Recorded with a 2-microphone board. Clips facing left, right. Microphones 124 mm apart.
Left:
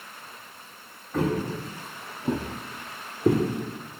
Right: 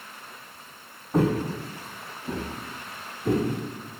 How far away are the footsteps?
About 1.0 m.